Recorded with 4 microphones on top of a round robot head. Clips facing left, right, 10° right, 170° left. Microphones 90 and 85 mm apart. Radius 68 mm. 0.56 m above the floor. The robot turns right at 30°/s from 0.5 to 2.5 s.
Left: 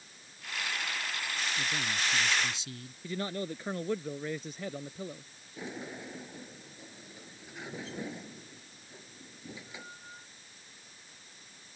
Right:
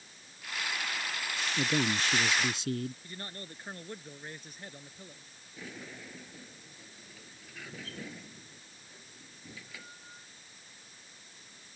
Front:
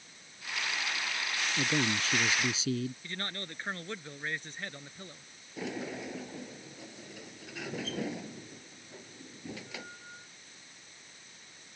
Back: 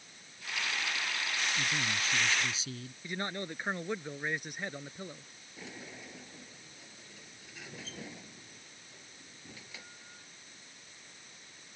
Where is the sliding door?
15° left.